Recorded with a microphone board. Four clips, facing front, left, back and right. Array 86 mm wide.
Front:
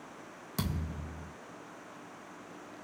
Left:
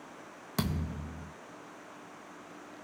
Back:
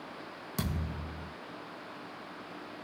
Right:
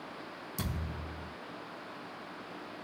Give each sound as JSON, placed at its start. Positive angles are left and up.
{"t": 0.6, "sound": "a thud", "azimuth_deg": 90, "distance_m": 2.0}